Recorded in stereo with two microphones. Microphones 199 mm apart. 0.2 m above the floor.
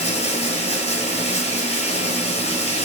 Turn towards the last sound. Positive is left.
turn(degrees=35)  # may be behind; listen again after turning